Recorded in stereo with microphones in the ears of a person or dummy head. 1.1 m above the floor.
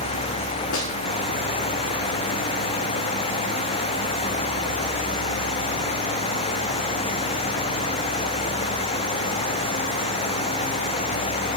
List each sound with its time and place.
0.7 s a snare drum: 70° left (ahead or behind), 2 m